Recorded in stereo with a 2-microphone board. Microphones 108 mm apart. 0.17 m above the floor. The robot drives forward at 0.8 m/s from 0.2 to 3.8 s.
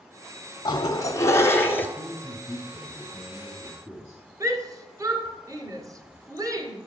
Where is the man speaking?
5° left (ahead or behind), 2.5 m.